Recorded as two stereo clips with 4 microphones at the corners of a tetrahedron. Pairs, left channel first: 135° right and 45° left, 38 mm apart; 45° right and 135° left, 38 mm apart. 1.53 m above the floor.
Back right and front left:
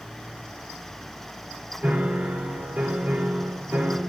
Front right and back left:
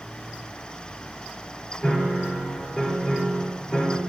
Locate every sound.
1.8 s a piano: 10° left, 5.5 m